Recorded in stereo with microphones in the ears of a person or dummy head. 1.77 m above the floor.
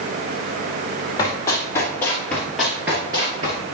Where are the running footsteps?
20° left (ahead or behind), 3 m; by 3.6 s 25° right (ahead or behind), 1.9 m.